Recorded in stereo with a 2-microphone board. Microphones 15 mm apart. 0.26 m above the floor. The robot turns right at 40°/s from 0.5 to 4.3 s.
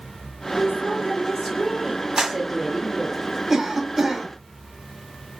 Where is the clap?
40° right (ahead or behind), 1.4 m; by 2.4 s 45° right (ahead or behind), 1.4 m.